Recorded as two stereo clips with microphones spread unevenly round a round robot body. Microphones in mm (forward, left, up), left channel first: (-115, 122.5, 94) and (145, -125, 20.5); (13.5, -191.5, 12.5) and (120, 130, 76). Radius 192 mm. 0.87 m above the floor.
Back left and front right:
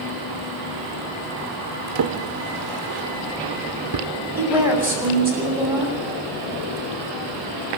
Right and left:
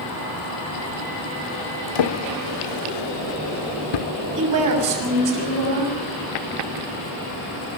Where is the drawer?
100° right, 1.0 m.